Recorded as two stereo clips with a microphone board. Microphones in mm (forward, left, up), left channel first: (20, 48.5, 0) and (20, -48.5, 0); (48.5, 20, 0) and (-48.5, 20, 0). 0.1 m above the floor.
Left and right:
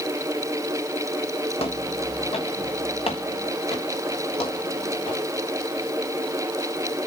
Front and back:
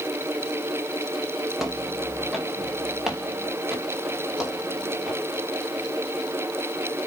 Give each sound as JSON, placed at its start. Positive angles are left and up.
{"t": 1.6, "sound": "footsteps", "azimuth_deg": 90, "distance_m": 2.5}